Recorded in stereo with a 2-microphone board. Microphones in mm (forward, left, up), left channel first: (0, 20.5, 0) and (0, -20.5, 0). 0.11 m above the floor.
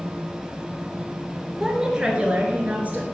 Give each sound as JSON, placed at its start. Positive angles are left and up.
{"t": 1.6, "sound": "a woman speaking", "side_deg": -15, "distance_m": 1.7}